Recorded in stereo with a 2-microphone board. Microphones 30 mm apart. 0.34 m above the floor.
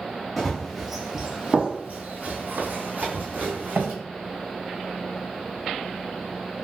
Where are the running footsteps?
5° left (ahead or behind), 1.0 m; by 3.9 s 65° right (ahead or behind), 1.3 m.